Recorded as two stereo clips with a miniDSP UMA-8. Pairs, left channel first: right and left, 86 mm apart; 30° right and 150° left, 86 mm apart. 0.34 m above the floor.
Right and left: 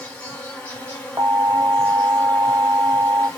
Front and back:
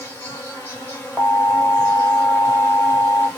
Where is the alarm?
80° left, 0.9 m.